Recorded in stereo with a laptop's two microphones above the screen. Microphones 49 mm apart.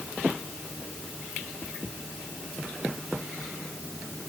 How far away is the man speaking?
No man speaking in this recording.